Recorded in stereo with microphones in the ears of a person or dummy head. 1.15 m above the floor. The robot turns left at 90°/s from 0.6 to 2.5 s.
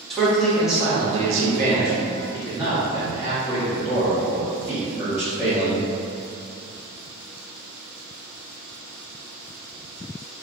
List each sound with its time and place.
0.1 s a man speaking: 5° left, 0.8 m; by 5.8 s 165° right, 0.8 m